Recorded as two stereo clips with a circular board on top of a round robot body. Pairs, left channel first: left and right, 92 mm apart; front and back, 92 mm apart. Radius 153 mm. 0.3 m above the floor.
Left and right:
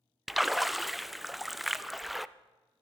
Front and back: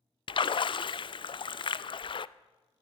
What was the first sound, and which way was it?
A splash, straight ahead.